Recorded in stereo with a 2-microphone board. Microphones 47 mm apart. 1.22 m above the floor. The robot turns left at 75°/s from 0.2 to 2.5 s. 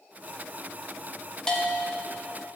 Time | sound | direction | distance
1.5 | a bell | 165° left | 0.9 m